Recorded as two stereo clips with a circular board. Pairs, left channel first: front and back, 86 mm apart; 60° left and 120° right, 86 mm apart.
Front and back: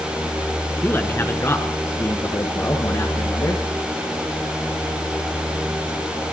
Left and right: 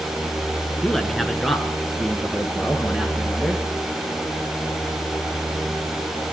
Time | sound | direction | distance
0.8 | a man speaking | 20° right | 1.2 m